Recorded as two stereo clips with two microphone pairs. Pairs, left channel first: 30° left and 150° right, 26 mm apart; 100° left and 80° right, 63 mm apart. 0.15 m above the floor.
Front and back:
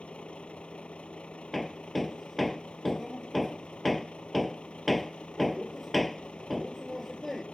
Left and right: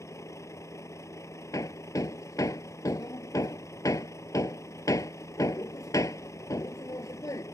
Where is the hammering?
120° left.